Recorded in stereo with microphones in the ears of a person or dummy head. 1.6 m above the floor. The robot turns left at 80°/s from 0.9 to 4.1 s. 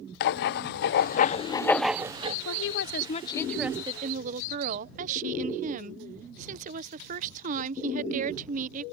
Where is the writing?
75° left; by 2.4 s 40° right.